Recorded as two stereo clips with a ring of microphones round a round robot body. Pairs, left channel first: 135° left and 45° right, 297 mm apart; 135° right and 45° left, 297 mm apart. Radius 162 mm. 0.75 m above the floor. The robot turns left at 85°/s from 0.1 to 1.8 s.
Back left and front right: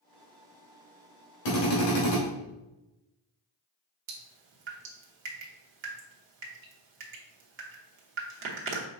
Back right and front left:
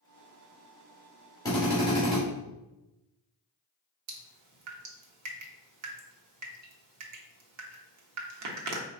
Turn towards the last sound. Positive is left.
turn(degrees=10)